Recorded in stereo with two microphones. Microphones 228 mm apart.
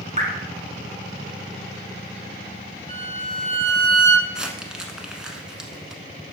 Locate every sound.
0.2 s dripping: 30° right (ahead or behind), 1.9 m
2.9 s a violin: 35° right (ahead or behind), 1.6 m
4.3 s crumpling: 5° right (ahead or behind), 1.0 m